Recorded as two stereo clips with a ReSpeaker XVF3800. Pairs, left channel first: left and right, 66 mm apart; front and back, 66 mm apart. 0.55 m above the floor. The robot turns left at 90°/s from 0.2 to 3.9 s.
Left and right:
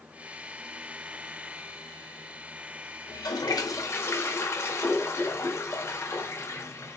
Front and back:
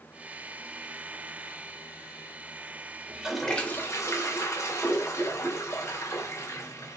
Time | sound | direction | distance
3.1 | a toilet flushing | 115° left | 1.0 m